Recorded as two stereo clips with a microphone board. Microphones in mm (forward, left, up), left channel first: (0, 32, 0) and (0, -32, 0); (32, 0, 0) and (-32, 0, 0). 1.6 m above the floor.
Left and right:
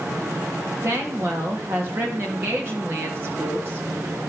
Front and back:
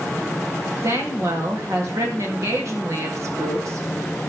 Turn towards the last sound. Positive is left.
turn(degrees=-145)